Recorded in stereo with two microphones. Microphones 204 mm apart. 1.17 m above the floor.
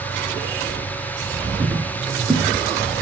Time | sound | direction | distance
1.6 | footsteps | 15° right (ahead or behind) | 1.2 m